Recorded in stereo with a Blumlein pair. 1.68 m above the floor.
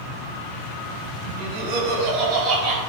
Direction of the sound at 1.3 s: 45° right.